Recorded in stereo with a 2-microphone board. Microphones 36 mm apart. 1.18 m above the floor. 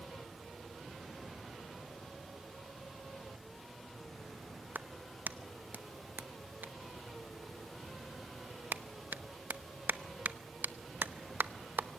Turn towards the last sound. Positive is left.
turn(degrees=-70)  # may be behind; listen again after turning